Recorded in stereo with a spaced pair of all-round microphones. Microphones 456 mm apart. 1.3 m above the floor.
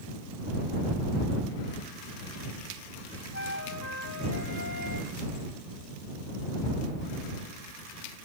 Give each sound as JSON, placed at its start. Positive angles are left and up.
{"t": 3.3, "sound": "a flute", "side_deg": 35}